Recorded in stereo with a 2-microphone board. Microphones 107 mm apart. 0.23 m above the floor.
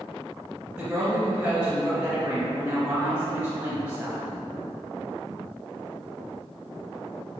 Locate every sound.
0.7 s a woman speaking: 10° right (ahead or behind), 1.4 m